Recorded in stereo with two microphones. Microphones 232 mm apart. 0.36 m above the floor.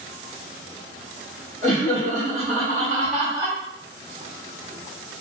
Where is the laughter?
55° right (ahead or behind), 1.9 m; by 3.6 s 20° right (ahead or behind), 1.4 m.